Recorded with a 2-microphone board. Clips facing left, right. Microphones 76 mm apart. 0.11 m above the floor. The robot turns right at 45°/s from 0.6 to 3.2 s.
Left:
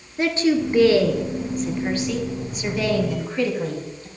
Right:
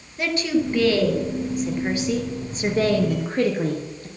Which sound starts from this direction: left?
A woman speaking, at 0.2 s.